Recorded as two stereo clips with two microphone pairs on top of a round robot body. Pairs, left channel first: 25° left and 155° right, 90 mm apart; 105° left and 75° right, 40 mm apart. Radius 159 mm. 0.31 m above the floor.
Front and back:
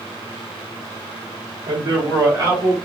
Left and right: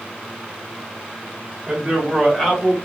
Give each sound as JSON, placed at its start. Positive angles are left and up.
{"t": 1.7, "sound": "a man speaking", "azimuth_deg": -150, "distance_m": 1.4}